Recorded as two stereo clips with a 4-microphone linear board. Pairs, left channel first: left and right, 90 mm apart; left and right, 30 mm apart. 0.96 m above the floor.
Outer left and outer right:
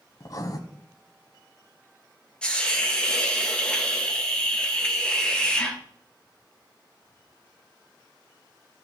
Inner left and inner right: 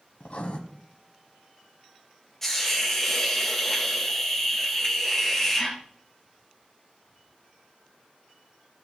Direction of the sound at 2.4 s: 10° left (ahead or behind).